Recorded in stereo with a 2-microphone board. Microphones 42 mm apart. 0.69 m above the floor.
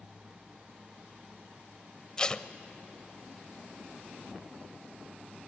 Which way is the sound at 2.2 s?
20° left (ahead or behind).